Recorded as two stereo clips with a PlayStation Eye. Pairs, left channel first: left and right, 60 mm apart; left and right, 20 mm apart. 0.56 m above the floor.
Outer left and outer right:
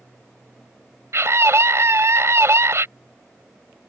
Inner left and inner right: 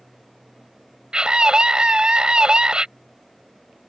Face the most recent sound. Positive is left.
turn(degrees=-55)  # may be behind; listen again after turning